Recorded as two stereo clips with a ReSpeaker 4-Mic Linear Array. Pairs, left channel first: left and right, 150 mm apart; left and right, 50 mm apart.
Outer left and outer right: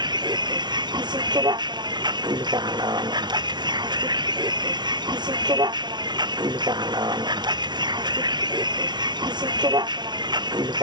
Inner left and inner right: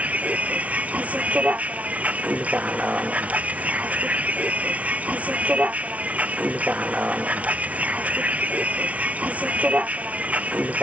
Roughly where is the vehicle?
Right.